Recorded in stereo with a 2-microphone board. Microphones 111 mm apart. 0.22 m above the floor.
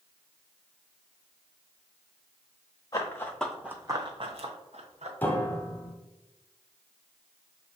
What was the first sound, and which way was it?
Running footsteps, 30° left (ahead or behind).